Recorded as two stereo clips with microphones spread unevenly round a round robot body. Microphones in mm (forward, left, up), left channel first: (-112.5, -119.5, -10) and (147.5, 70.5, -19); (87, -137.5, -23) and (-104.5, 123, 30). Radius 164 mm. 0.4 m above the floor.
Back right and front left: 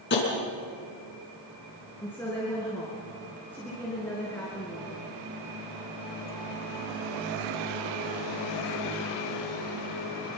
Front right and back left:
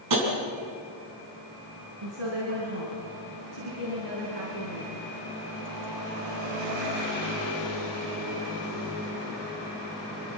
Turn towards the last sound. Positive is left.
turn(degrees=130)